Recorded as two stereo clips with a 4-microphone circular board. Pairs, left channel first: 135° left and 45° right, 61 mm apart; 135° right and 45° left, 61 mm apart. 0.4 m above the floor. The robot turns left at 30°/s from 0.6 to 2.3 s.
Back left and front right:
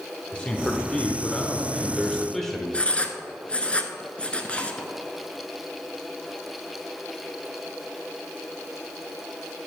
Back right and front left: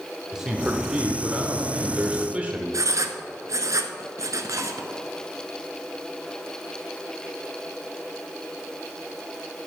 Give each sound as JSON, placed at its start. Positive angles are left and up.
{"t": 0.3, "sound": "a man speaking", "azimuth_deg": 110, "distance_m": 0.8}
{"t": 2.7, "sound": "writing", "azimuth_deg": 65, "distance_m": 0.7}